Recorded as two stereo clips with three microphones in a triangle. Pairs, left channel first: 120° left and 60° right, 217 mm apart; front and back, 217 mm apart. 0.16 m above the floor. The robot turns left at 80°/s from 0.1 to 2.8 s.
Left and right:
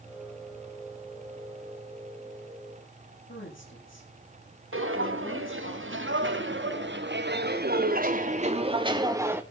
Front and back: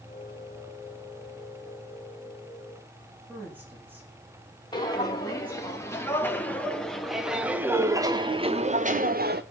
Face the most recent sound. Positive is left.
turn(degrees=-140)